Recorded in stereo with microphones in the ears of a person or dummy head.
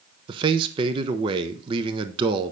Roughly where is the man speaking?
Right.